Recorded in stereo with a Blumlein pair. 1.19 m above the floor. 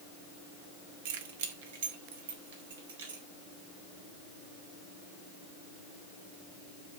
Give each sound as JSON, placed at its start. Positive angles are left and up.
{"t": 1.1, "sound": "keys jangling", "azimuth_deg": -50, "distance_m": 1.6}